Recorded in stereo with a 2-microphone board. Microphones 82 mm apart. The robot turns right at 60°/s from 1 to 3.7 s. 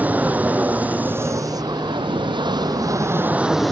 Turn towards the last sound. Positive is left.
turn(degrees=5)